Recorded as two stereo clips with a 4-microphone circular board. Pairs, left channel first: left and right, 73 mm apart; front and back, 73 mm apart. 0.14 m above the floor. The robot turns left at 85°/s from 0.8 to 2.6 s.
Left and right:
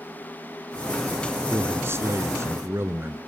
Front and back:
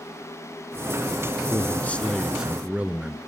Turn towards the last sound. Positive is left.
turn(degrees=-120)